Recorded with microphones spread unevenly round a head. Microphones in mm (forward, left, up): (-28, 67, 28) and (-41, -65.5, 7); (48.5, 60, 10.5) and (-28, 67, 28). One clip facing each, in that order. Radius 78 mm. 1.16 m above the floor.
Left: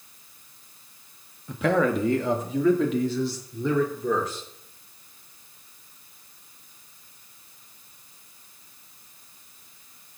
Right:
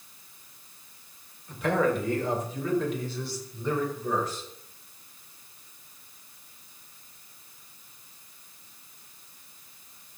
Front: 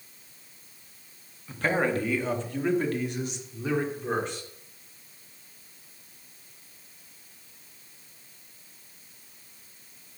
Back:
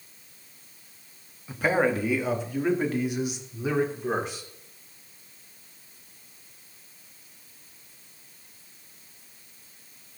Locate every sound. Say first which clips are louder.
1.5 s a man speaking: left 3 dB, back 2 dB; 95° left, 2 m; by 4.4 s 90° left, 4 m